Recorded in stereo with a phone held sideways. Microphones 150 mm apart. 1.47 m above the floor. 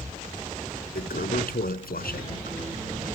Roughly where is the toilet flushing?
Left.